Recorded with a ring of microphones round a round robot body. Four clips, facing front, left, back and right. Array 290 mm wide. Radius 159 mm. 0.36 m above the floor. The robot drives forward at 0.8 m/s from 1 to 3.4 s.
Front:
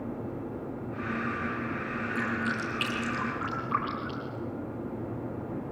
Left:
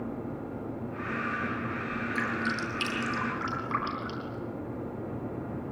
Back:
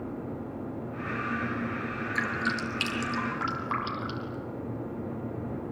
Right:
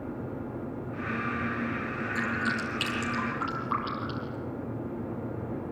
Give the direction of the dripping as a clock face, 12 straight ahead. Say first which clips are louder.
Right 1 dB, back 1 dB; 6 o'clock.